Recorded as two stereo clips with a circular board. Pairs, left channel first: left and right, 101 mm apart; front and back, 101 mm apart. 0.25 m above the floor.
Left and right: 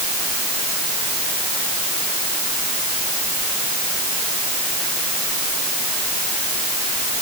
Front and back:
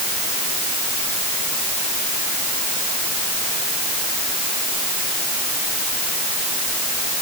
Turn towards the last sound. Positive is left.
No sound to turn to.